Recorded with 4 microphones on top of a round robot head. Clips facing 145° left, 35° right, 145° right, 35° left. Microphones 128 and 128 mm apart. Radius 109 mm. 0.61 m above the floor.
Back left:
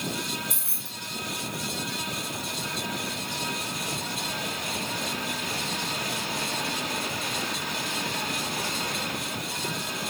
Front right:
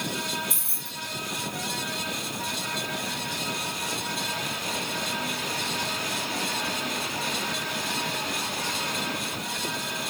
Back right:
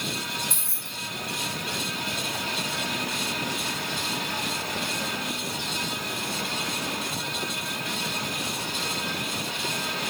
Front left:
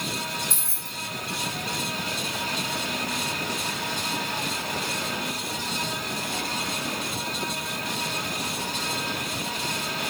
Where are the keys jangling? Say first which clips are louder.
Front right 1 dB, front left 1 dB; 50° left, 1.7 m.